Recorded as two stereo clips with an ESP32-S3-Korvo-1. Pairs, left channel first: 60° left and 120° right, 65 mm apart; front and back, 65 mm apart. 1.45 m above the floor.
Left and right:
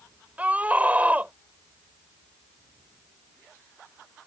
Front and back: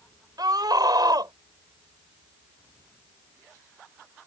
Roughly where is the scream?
Behind.